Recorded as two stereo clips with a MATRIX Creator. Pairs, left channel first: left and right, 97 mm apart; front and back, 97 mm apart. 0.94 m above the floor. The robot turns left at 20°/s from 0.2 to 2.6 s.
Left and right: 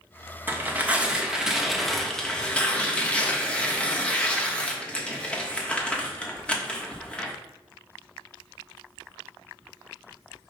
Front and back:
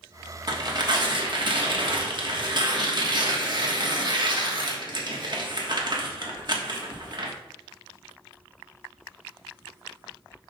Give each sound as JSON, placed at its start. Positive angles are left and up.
{"t": 0.5, "sound": "tearing paper", "azimuth_deg": -155, "distance_m": 1.2}